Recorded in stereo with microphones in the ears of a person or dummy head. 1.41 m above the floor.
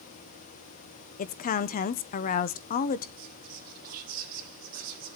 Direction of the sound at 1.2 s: 45° left (ahead or behind).